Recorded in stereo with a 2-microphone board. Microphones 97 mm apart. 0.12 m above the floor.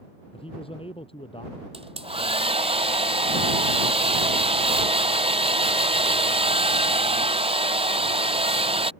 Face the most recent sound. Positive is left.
turn(degrees=-75)  # may be behind; listen again after turning